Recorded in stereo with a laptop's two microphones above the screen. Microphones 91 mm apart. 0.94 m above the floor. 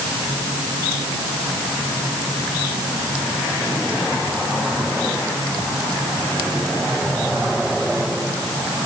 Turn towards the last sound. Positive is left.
No sound to turn to.